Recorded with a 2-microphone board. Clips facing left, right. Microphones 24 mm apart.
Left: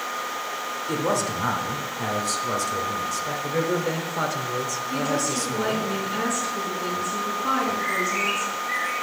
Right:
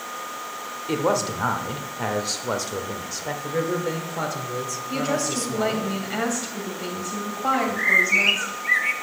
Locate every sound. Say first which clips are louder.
0.9 s a man speaking: right 2 dB; 30° right (ahead or behind), 0.9 m
3.4 s a man speaking: even; 5° left (ahead or behind), 0.9 m
4.9 s a woman speaking: right 1 dB; 55° right (ahead or behind), 2.5 m
7.5 s a bird: right 8 dB; 55° right (ahead or behind), 0.6 m